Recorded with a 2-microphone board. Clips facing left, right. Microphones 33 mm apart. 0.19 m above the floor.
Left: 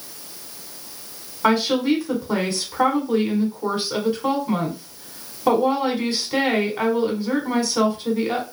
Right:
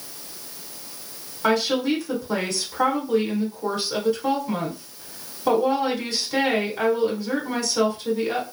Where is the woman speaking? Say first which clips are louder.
Left 2 dB; 25° left (ahead or behind), 1.2 m.